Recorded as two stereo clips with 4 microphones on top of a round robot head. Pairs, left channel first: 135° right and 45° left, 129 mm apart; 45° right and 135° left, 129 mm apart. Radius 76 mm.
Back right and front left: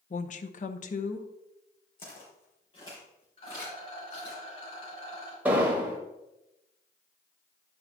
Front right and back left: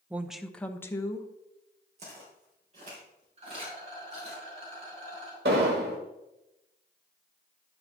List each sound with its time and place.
0.1 s a woman speaking: 150° right, 0.7 m; by 1.3 s 105° right, 1.1 m
2.0 s footsteps: 175° left, 3.5 m; by 4.4 s 170° left, 5.5 m
3.4 s a rattle: 175° left, 4 m
5.5 s an explosion: 120° left, 1.4 m